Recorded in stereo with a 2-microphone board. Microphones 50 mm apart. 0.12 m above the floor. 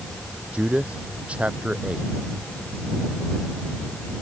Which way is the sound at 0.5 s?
25° right (ahead or behind).